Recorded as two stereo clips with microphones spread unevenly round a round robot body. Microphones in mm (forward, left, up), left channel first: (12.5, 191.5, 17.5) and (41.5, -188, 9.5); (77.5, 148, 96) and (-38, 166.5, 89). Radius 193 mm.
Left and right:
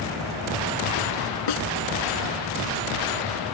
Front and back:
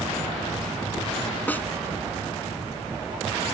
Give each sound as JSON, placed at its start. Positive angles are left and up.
{"t": 1.5, "sound": "a snare drum", "azimuth_deg": 65}